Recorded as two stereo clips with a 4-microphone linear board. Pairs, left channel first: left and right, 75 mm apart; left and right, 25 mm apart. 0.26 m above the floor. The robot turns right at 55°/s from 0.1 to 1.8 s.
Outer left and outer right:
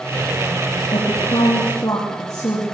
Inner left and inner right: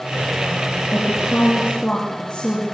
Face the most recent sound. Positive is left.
turn(degrees=120)